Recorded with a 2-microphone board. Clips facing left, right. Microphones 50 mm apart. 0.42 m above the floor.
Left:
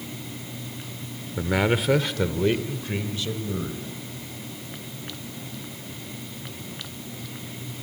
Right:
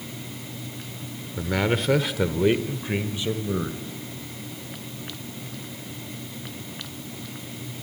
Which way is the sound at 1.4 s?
20° left (ahead or behind).